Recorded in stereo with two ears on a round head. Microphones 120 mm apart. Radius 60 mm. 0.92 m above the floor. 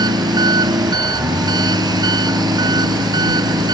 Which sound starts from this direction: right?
An engine running, at 0.0 s.